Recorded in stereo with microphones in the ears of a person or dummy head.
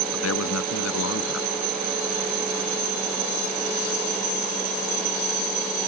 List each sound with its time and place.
0.1 s a man speaking: 90° left